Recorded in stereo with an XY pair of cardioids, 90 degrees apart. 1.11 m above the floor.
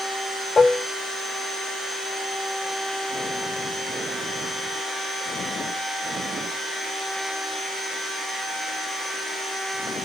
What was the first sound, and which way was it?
Dishes clattering, 35° left.